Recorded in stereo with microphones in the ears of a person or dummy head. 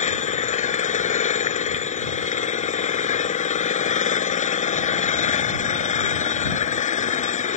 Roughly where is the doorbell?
I don't hear a doorbell.